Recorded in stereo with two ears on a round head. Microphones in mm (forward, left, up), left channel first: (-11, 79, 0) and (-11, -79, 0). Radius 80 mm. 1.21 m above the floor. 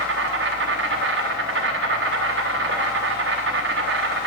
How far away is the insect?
About 1.0 m.